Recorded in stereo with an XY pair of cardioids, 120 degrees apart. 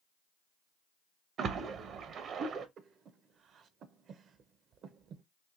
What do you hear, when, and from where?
1.4 s a splash: 55° right, 0.6 m
2.8 s breathing: 55° right, 0.5 m